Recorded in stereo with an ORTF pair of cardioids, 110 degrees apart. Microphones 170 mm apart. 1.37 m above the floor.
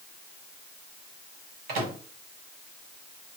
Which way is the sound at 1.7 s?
70° right.